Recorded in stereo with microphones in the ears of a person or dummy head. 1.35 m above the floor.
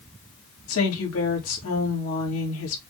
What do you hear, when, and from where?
0.7 s a woman speaking: 80° left, 2.5 m